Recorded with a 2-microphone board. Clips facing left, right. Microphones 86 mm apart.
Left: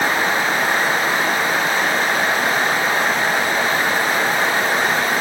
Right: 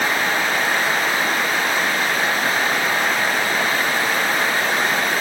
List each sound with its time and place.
Only background noise.